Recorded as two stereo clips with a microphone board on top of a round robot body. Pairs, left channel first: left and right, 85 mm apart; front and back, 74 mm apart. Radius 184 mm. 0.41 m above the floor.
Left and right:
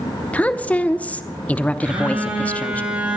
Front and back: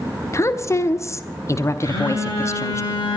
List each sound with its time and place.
0.3 s a woman speaking: 25° left, 1.0 m
1.8 s a phone buzzing: 15° right, 9 m